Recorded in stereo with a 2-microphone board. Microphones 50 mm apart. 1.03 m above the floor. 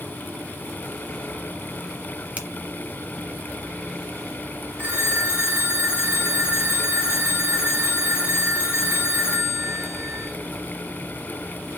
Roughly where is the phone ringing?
Right.